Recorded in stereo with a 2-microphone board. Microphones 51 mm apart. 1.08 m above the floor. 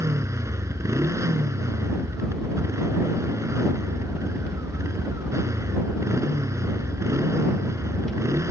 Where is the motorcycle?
75° right (ahead or behind).